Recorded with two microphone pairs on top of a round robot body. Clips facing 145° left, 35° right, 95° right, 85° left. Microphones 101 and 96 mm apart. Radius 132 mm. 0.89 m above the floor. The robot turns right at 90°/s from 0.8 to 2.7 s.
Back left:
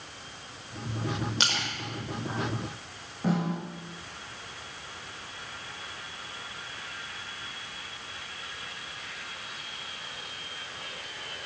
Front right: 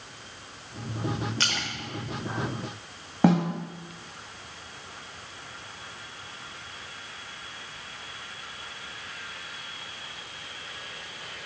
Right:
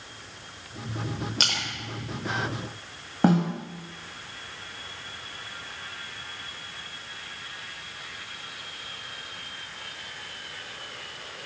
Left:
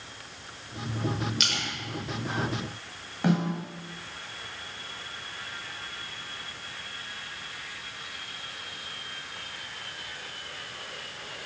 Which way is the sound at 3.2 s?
50° right.